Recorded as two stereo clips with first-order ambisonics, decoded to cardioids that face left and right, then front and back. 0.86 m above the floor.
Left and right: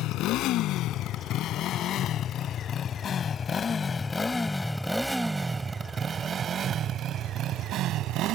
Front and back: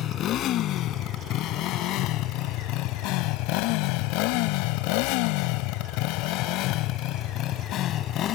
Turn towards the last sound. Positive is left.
turn(degrees=-50)